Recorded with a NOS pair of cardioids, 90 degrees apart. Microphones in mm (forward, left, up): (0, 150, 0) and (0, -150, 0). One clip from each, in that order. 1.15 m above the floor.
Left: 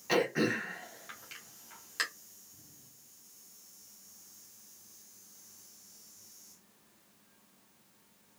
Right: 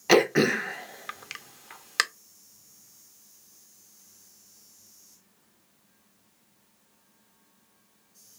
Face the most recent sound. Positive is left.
turn(degrees=-65)